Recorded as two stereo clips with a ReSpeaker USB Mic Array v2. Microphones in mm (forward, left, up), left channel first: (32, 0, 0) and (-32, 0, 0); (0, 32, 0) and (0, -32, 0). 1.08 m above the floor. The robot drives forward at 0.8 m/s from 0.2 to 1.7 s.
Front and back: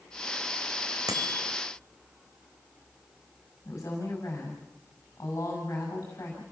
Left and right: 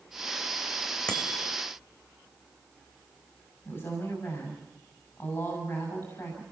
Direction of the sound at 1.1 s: 165° left.